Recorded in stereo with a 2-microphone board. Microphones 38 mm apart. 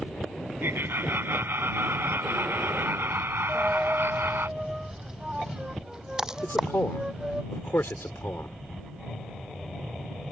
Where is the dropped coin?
15° right (ahead or behind).